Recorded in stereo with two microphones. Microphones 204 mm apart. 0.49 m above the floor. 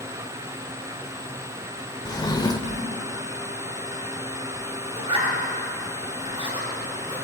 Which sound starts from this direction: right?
A zipper, at 5.0 s.